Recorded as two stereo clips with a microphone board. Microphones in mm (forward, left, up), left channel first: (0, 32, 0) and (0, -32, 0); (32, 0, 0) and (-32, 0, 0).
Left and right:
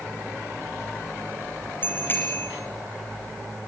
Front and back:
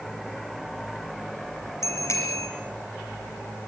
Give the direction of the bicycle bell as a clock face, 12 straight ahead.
11 o'clock.